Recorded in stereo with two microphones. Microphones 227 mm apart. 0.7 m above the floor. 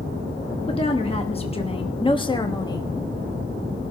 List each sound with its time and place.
0.7 s a woman speaking: 25° left (ahead or behind), 1.1 m; by 2.9 s 15° left (ahead or behind), 1.3 m